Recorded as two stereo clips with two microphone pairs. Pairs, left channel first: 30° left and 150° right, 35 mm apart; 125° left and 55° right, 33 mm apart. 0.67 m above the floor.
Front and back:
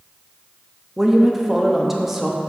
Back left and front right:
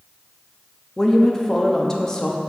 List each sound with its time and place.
1.0 s a woman speaking: 150° left, 0.5 m